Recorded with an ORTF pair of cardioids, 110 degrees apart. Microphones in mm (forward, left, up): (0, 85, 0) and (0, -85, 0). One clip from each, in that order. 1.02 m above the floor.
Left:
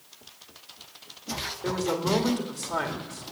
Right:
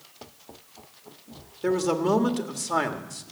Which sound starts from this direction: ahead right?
A man speaking, at 1.6 s.